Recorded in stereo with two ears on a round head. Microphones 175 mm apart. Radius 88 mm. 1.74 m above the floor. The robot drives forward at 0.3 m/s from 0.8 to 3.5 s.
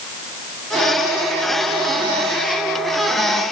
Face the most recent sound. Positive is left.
No sound to turn to.